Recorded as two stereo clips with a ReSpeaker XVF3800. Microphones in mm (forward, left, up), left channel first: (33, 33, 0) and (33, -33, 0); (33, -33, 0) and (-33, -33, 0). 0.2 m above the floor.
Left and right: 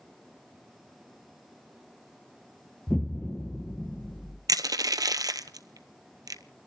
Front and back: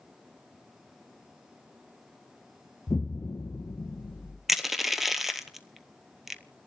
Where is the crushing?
95° right, 0.8 m.